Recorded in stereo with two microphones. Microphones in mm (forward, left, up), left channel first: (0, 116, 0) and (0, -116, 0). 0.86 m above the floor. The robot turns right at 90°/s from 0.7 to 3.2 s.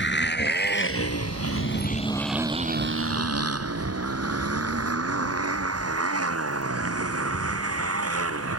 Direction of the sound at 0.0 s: 50° left (ahead or behind).